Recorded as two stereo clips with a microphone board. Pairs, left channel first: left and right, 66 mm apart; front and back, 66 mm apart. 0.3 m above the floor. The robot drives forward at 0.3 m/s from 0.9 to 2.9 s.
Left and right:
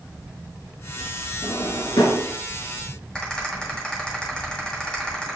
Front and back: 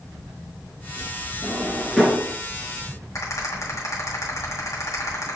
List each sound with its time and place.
1.4 s a drawer: 80° left, 1.6 m; by 2.3 s 85° left, 1.6 m
3.1 s a rattle: 15° left, 2 m